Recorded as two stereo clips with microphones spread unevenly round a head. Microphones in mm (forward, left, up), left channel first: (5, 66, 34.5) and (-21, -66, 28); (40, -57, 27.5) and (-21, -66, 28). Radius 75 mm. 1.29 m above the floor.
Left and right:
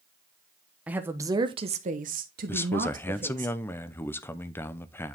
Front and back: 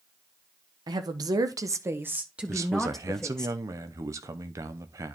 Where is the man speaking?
155° left, 0.8 m.